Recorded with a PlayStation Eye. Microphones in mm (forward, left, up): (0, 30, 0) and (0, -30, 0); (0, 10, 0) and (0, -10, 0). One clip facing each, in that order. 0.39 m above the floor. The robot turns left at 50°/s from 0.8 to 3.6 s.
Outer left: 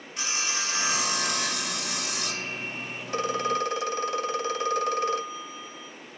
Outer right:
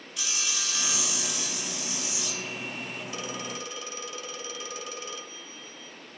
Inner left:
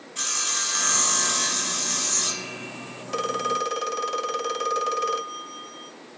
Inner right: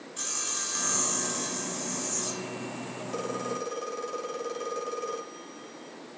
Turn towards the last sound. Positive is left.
turn(degrees=55)  # may be behind; listen again after turning